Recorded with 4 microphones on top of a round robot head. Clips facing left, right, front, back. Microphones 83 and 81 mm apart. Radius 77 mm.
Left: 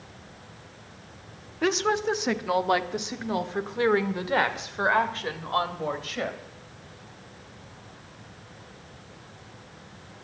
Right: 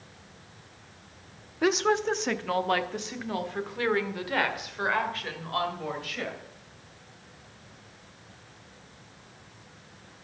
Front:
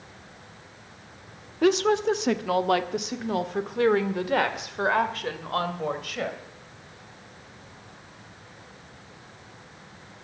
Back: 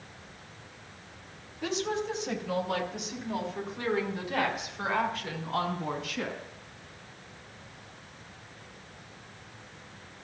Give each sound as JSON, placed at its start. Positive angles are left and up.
{"t": 1.6, "sound": "a woman speaking", "azimuth_deg": -5, "distance_m": 0.9}